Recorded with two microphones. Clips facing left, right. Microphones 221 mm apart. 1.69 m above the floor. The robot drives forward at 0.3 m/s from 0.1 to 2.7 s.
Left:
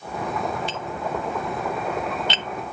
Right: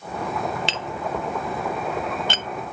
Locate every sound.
0.7 s tapping: 80° right; by 2.5 s 45° right (ahead or behind)